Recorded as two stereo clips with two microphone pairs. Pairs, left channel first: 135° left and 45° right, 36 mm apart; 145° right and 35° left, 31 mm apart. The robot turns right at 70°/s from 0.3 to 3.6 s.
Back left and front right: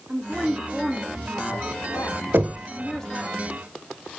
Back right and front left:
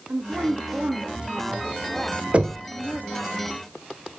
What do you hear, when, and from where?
0.1 s a woman speaking: 20° left, 2.5 m; by 3.3 s 130° right, 2.5 m
2.3 s knocking: 15° right, 1.0 m; by 2.7 s 5° left, 1.0 m